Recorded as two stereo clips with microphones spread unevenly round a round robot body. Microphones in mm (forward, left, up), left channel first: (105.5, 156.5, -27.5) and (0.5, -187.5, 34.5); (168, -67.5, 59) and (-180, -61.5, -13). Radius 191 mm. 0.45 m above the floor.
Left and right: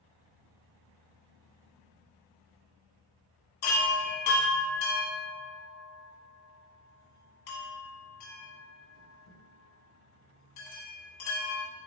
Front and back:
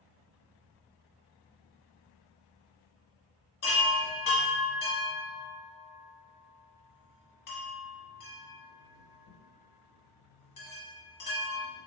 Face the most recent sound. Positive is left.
turn(degrees=45)